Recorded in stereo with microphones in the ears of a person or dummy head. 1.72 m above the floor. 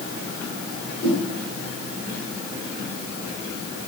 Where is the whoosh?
10° left (ahead or behind), 6 m.